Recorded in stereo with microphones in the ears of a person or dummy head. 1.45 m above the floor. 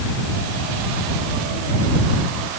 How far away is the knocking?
I don't hear knocking.